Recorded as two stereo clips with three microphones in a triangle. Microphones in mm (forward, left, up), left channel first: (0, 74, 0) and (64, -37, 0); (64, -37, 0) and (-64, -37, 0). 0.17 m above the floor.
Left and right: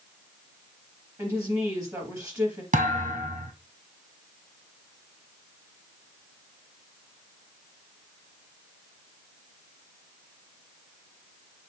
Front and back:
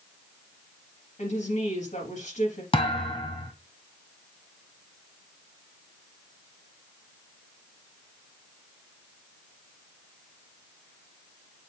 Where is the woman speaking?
5° left, 4 m.